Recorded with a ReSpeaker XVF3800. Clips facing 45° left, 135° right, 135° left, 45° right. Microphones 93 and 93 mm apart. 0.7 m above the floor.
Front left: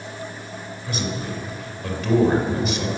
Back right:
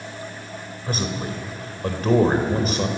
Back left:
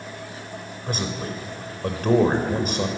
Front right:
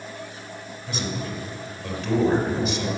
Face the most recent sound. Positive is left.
turn(degrees=175)